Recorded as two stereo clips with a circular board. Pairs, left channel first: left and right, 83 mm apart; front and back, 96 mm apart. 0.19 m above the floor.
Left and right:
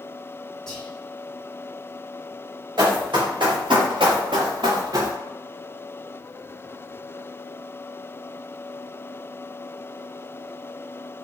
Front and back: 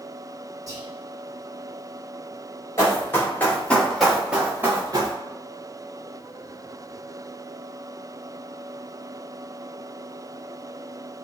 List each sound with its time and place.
0.7 s whispering: 170° left, 2.0 m
2.8 s running footsteps: 60° right, 1.9 m; by 5.2 s 135° right, 1.0 m